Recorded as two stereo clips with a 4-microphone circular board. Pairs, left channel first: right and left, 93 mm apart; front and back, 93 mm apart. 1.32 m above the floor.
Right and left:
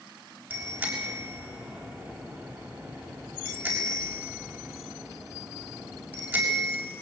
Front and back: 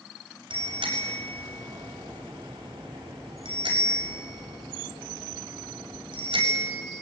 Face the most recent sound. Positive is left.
turn(degrees=155)